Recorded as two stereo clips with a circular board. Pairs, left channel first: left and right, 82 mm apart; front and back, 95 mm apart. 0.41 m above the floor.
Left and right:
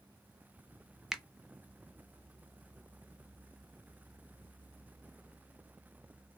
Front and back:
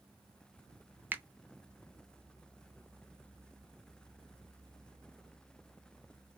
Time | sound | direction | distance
1.1 | a finger snap | 165° right | 0.6 m